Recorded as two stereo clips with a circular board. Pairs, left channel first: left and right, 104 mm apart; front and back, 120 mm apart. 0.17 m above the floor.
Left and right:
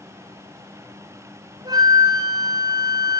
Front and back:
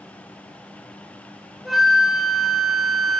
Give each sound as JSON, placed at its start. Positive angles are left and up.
{"t": 1.6, "sound": "a flute", "azimuth_deg": -95, "distance_m": 1.2}